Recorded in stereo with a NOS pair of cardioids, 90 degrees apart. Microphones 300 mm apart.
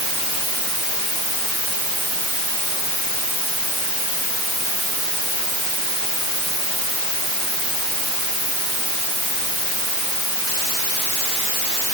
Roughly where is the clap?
I don't hear a clap.